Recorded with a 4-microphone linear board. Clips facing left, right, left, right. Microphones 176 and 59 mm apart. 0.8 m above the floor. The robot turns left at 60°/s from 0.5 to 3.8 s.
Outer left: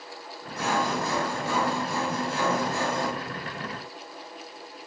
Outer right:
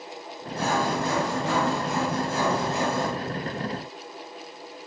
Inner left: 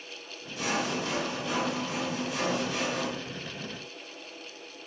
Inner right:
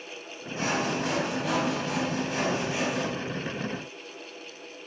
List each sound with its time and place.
0.6 s sawing: 30° right, 3 m; by 3.1 s 175° left, 3 m